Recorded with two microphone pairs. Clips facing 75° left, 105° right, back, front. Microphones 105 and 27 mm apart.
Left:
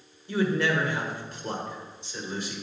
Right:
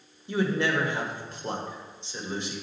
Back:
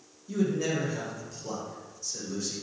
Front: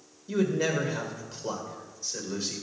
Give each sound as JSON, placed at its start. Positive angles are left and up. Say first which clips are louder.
{"t": 0.3, "sound": "a man speaking", "louder": "left 1 dB, front 2 dB", "azimuth_deg": -50, "distance_m": 1.2}